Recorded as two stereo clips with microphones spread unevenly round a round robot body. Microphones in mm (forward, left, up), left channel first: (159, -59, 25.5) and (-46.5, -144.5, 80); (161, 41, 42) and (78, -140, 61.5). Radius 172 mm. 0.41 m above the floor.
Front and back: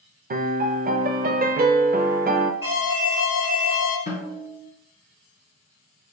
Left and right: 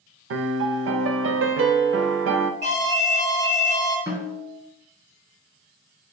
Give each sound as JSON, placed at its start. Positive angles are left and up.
{"t": 0.3, "sound": "a piano", "azimuth_deg": -95, "distance_m": 0.5}
{"t": 2.6, "sound": "an alarm", "azimuth_deg": -70, "distance_m": 1.8}
{"t": 4.1, "sound": "a snare drum", "azimuth_deg": -35, "distance_m": 2.5}